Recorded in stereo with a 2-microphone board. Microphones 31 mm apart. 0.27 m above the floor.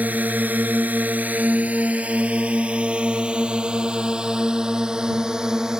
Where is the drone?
65° right (ahead or behind); by 5.8 s 20° right (ahead or behind).